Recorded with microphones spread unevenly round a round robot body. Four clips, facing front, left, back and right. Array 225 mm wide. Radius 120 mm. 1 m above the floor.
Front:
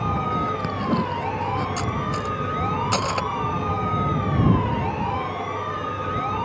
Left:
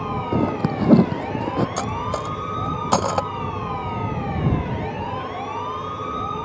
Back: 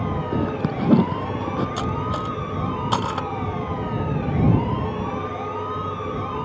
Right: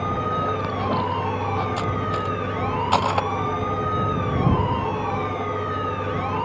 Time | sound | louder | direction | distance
0.3 | a zipper | left 3 dB, back 1 dB | 115° left | ?
1.8 | cutlery clinking | even, back 1 dB | 110° left | ?